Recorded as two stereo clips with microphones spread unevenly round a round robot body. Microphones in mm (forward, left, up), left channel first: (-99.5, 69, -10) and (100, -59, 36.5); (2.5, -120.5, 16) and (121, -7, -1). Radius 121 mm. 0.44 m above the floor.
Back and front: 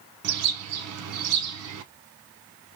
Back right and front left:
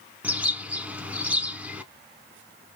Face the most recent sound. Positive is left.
turn(degrees=-40)